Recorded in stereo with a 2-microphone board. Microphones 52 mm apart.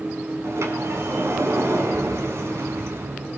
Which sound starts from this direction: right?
A sliding door, at 0.4 s.